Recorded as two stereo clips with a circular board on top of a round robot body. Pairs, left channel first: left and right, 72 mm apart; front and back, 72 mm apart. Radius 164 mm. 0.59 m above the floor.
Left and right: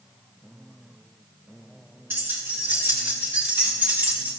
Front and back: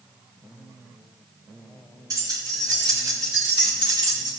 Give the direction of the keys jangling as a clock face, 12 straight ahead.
5 o'clock.